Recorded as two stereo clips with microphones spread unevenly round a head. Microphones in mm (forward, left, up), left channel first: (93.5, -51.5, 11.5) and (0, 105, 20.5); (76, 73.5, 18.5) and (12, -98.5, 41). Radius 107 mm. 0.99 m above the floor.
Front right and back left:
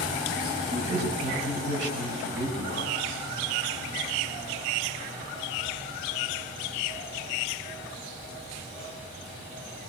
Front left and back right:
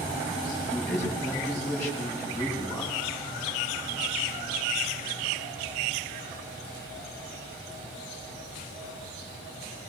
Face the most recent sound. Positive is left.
turn(degrees=160)